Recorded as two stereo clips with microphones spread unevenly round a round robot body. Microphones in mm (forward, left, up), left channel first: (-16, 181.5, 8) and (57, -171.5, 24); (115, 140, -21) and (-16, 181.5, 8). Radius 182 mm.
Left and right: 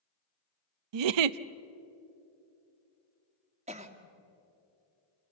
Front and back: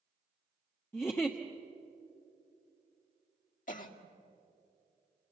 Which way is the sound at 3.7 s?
5° right.